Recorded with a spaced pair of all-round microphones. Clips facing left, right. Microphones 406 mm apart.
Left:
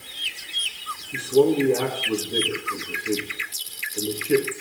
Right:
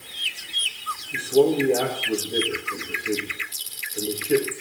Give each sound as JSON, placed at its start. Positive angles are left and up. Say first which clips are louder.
{"t": 1.1, "sound": "a man speaking", "louder": "even", "side_deg": 15, "distance_m": 2.5}